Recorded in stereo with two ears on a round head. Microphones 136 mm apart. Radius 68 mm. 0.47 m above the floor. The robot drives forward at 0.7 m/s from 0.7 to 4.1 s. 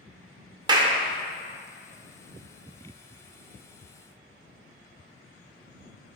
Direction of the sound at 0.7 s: 25° right (ahead or behind).